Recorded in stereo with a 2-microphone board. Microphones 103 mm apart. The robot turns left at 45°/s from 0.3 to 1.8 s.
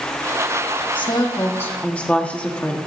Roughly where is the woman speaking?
Ahead left.